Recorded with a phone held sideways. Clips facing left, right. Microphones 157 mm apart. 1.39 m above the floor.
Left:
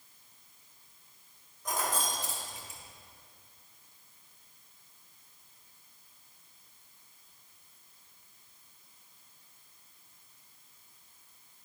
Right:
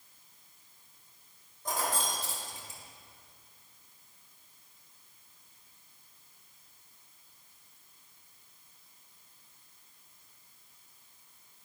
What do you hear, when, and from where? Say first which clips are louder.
1.6 s keys jangling: even; 35° right (ahead or behind), 2 m